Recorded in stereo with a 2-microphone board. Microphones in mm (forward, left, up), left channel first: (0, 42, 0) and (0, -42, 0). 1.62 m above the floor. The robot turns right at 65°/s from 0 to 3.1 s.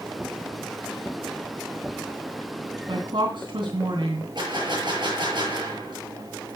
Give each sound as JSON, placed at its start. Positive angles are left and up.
{"t": 2.9, "sound": "a woman speaking", "side_deg": -85, "distance_m": 3.0}
{"t": 4.3, "sound": "a gunshot", "side_deg": -65, "distance_m": 7.5}